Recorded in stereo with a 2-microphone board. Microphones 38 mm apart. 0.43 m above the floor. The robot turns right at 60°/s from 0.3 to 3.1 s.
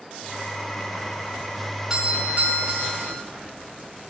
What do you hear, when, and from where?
1.9 s a doorbell: 165° right, 3.5 m; by 3.2 s 90° right, 3.5 m